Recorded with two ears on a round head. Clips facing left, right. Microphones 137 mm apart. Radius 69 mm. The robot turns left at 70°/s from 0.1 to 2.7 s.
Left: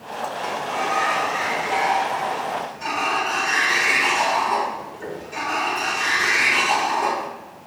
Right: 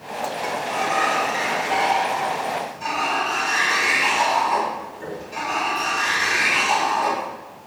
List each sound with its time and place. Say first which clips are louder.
0.4 s a sliding door: even; 15° right, 2.0 m; by 7.3 s 175° right, 2.0 m